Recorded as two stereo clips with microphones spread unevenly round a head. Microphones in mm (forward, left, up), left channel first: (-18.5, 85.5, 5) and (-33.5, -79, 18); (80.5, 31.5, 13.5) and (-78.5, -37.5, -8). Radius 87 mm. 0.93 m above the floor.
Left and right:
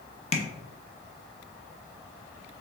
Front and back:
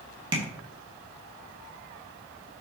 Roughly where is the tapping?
Behind left.